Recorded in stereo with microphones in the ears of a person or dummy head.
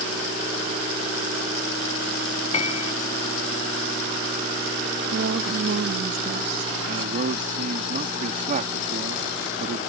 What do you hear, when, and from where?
2.5 s a piano: 35° left (ahead or behind)
5.1 s a woman speaking: 65° right (ahead or behind)
6.9 s a man speaking: 40° right (ahead or behind)